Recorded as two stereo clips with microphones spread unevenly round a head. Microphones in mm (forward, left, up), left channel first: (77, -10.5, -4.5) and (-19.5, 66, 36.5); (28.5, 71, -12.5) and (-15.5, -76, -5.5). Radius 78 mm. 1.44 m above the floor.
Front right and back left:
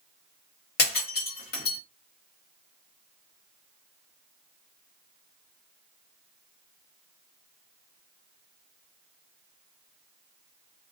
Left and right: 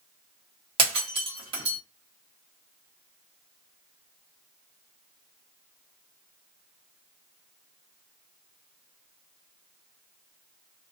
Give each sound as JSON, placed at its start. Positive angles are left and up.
{"t": 0.8, "sound": "breaking glass", "azimuth_deg": -60, "distance_m": 1.3}